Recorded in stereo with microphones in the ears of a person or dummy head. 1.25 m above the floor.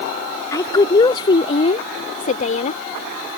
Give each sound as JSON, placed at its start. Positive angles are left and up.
{"t": 0.5, "sound": "a woman speaking", "side_deg": 15}